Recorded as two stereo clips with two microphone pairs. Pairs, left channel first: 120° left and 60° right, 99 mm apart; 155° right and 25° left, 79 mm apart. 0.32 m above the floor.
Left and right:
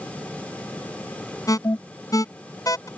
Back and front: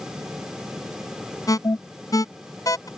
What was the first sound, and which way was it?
An alarm, 170° left.